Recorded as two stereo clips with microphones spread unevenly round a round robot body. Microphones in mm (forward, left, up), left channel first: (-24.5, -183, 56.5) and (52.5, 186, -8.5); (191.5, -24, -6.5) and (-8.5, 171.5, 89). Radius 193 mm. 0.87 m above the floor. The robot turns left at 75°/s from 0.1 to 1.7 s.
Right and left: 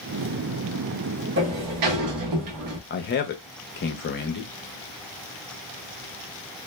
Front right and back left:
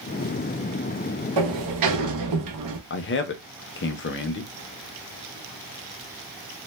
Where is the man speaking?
35° right, 0.6 m.